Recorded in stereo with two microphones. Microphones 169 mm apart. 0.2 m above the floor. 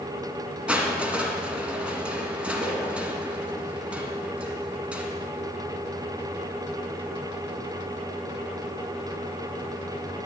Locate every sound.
0.7 s crushing: 5° right (ahead or behind), 1.9 m